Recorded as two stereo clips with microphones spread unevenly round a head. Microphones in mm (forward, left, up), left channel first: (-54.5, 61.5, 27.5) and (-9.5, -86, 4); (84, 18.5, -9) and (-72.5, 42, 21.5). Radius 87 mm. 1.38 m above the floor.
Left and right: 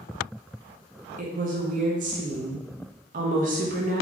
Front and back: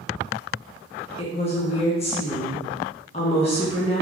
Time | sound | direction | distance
1.2 | a woman speaking | 50° right | 0.7 m